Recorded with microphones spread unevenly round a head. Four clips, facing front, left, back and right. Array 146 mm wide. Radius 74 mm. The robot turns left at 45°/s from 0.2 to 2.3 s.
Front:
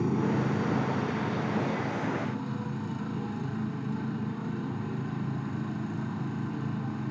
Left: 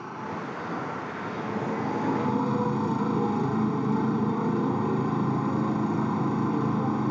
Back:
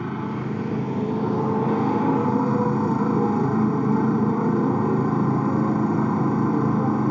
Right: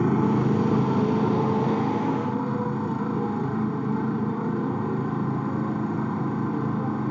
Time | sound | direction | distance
0.0 | a motorcycle | 90° right | ?